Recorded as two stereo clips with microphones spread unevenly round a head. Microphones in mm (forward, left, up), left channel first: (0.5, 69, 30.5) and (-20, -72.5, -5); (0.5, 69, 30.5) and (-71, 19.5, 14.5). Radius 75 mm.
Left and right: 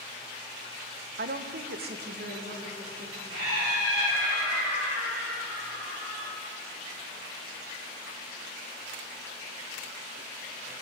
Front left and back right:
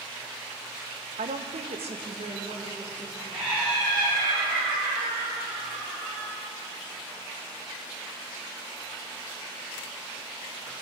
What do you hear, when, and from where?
1.2 s a woman speaking: 130° right, 0.9 m; by 3.2 s 120° right, 3 m
3.3 s laughter: 85° right, 5 m